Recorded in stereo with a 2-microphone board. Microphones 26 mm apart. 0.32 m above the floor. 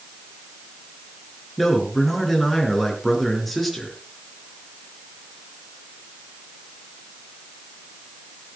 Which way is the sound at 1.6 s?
5° left (ahead or behind).